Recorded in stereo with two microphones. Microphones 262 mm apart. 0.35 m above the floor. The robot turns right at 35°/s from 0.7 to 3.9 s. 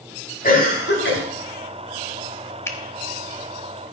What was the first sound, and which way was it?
A cough, 30° left (ahead or behind).